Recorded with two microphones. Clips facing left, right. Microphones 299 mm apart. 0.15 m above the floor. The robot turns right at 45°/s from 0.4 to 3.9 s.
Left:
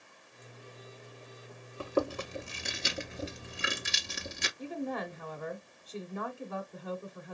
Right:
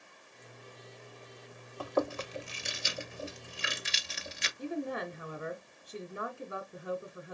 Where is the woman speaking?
15° right (ahead or behind), 1.0 m.